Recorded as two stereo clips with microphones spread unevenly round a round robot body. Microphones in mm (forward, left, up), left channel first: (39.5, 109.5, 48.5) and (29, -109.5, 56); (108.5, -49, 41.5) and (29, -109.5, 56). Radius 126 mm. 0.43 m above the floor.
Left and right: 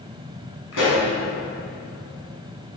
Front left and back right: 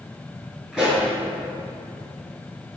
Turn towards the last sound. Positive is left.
turn(degrees=120)